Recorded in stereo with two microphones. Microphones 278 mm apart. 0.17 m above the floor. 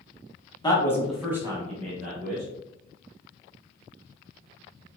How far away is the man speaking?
About 1.1 m.